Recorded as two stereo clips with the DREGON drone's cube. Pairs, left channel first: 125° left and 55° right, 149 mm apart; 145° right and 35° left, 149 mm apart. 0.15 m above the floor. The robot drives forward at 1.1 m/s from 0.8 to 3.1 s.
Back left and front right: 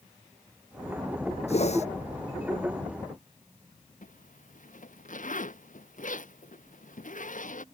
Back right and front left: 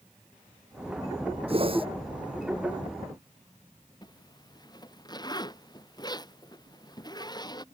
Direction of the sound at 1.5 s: 85° left.